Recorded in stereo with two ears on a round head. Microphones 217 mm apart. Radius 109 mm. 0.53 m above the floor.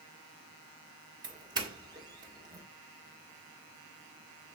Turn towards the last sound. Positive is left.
turn(degrees=-20)  # may be behind; listen again after turning